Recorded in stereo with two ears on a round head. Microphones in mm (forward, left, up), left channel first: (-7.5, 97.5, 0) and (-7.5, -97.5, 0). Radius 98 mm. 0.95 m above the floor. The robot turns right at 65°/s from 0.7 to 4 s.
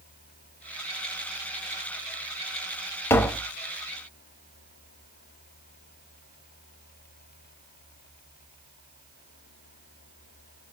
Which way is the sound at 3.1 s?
10° left (ahead or behind).